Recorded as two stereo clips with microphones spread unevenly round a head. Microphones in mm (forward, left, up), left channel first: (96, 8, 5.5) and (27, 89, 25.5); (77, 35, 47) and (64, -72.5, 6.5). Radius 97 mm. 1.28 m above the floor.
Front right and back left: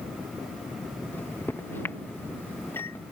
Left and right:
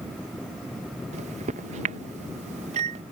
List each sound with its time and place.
1.1 s a microwave: 130° right